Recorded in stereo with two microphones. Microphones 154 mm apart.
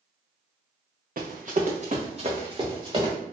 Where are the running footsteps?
65° right (ahead or behind), 0.7 m; by 3.1 s 30° right (ahead or behind), 1.6 m.